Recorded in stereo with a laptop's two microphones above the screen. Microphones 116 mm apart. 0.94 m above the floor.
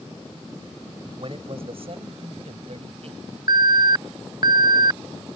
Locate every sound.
1.2 s a man speaking: 50° right (ahead or behind); by 3.4 s 65° right (ahead or behind)
3.5 s an alarm: 35° right (ahead or behind)